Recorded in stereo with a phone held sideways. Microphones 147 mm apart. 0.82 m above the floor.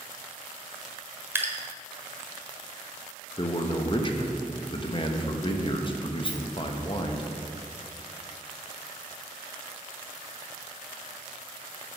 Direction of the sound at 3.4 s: 35° left (ahead or behind).